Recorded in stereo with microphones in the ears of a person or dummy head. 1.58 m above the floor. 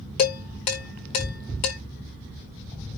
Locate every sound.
0.2 s dishes clattering: 30° left (ahead or behind), 1.2 m